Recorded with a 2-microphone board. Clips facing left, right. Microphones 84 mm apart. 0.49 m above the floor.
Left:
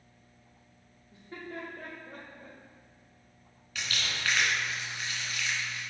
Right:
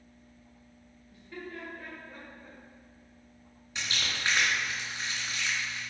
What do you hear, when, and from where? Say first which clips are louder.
1.1 s laughter: left 1 dB; 25° left (ahead or behind), 1.5 m; by 2.6 s 65° left (ahead or behind), 2.5 m
3.8 s crumpling: even; 25° right (ahead or behind), 3 m